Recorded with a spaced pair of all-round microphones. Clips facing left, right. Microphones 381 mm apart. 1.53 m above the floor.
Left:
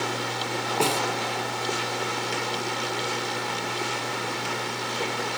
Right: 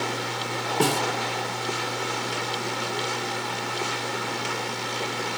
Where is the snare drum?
25° right (ahead or behind), 0.9 m.